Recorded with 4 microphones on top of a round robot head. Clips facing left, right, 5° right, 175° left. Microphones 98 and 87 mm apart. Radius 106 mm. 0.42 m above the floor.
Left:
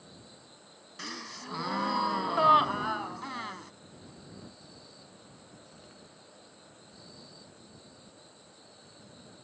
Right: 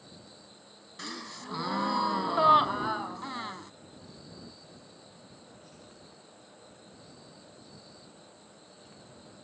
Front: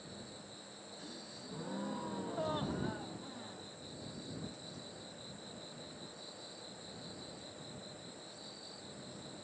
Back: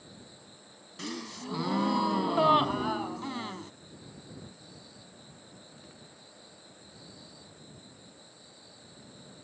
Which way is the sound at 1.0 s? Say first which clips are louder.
Right 1 dB, back 14 dB; 175° right.